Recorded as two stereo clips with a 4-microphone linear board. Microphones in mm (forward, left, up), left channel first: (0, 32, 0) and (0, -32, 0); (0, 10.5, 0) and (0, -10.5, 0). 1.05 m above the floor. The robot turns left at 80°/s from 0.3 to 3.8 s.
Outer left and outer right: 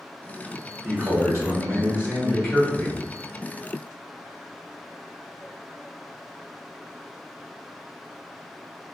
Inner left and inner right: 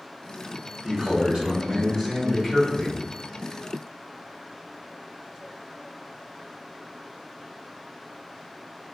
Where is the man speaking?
60° right, 1.0 m; by 3.0 s 130° left, 1.0 m.